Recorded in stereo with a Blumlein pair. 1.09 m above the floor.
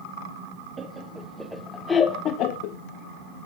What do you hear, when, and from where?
0.8 s laughter: 20° right, 1.4 m; by 2.8 s 50° left, 1.0 m